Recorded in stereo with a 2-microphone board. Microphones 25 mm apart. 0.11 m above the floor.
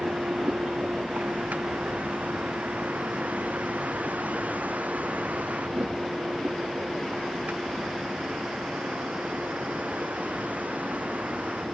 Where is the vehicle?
80° right.